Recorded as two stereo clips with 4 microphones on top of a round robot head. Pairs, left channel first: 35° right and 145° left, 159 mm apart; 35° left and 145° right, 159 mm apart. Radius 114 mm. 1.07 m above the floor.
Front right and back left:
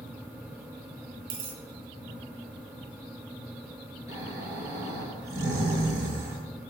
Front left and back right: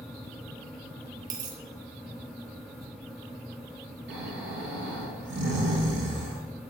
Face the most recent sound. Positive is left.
turn(degrees=-145)